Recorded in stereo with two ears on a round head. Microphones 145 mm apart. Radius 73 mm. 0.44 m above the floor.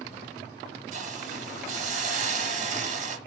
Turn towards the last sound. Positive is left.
turn(degrees=-50)  # may be behind; listen again after turning